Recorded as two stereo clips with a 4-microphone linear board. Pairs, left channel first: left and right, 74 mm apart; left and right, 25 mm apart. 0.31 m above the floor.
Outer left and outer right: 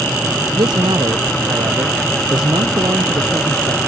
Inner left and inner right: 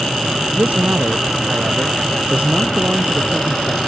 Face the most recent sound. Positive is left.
turn(degrees=-80)